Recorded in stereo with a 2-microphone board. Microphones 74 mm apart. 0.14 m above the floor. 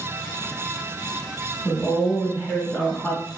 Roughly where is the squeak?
No squeak in this recording.